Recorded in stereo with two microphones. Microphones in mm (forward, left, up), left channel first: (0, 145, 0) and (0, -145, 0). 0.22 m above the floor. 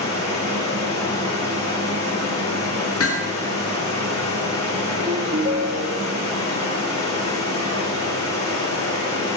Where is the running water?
10° left (ahead or behind), 7.5 m.